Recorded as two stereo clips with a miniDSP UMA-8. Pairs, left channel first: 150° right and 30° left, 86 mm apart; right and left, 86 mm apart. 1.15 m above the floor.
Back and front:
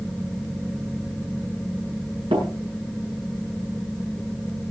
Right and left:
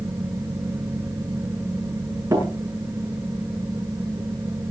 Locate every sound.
2.3 s tapping: 35° left, 8 m